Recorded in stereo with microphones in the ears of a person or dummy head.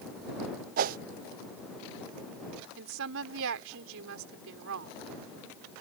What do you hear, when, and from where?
0.8 s a whoosh: 50° right (ahead or behind)
2.8 s a woman speaking: 70° right (ahead or behind)